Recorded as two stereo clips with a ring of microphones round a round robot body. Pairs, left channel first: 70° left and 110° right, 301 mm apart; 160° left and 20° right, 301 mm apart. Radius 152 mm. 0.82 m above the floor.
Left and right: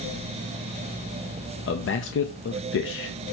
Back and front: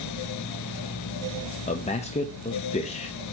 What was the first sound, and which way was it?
A man speaking, 95° left.